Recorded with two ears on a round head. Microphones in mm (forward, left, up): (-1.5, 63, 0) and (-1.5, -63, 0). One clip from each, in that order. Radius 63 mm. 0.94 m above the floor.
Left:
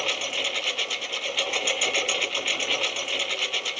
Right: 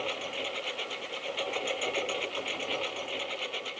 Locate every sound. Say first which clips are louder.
0.0 s a lawn mower: left 8 dB; 75° left (ahead or behind)